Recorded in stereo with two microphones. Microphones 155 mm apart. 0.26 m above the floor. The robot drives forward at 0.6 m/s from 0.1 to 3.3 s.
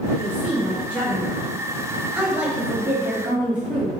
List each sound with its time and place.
0.2 s a woman speaking: 5° right (ahead or behind), 1.6 m